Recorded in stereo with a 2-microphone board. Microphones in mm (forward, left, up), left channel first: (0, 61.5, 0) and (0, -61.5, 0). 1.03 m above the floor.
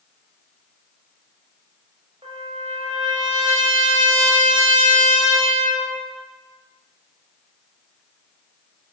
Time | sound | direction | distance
2.2 | a trumpet | 50° right (ahead or behind) | 4 m